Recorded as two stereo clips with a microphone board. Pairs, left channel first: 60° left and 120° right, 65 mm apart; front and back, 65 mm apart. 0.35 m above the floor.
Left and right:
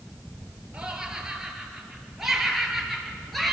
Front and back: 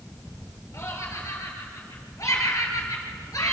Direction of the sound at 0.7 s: 40° right.